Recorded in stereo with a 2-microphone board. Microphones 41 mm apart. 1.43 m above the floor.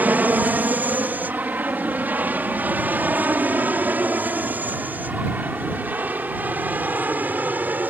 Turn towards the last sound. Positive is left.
turn(degrees=-45)  # may be behind; listen again after turning